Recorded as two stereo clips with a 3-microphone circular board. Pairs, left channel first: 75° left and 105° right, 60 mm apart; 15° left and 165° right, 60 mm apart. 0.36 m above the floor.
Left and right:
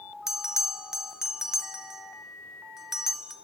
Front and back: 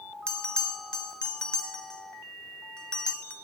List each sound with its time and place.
0.3 s a bell: 35° right, 0.6 m